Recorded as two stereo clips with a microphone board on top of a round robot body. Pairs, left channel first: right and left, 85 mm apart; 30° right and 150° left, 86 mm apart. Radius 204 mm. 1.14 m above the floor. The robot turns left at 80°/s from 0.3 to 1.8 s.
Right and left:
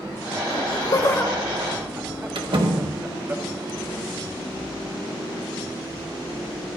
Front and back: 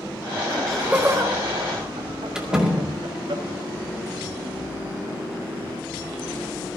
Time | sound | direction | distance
0.5 | laughter | 100° right | 2.5 m
2.4 | a door slam | 65° left | 2 m